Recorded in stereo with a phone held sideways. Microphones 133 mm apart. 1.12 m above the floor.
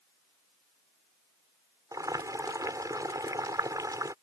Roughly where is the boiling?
Right.